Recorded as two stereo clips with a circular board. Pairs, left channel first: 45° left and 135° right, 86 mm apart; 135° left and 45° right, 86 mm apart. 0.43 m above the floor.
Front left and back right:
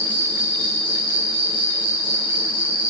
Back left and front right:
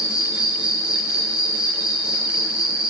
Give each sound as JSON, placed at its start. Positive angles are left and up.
{"t": 0.0, "sound": "an insect", "azimuth_deg": 35, "distance_m": 4.0}